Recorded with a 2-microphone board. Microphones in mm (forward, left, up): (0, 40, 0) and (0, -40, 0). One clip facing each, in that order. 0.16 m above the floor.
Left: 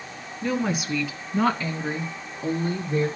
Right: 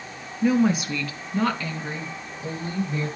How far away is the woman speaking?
About 1.5 m.